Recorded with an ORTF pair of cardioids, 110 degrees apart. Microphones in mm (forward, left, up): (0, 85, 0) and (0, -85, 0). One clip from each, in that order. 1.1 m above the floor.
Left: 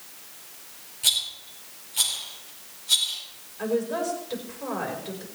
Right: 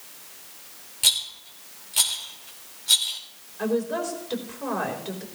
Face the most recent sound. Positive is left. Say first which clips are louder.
# even
turn(degrees=-15)